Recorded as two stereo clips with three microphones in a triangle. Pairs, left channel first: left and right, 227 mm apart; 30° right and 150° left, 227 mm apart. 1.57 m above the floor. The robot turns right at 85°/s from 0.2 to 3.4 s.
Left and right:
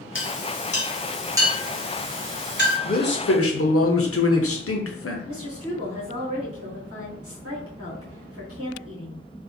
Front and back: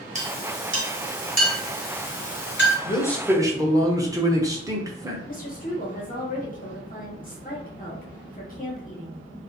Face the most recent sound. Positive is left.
turn(degrees=-85)